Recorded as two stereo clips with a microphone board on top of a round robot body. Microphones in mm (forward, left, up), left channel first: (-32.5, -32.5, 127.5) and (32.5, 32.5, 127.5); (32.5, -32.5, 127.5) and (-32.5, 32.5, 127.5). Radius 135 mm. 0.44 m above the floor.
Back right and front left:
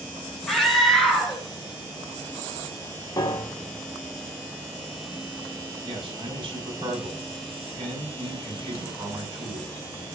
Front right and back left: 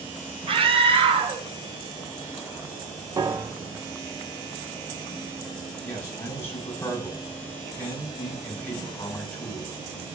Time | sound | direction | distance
0.5 | a scream | 140° left | 3 m
3.2 | a piano | straight behind | 1.5 m
5.8 | a man speaking | 20° left | 5 m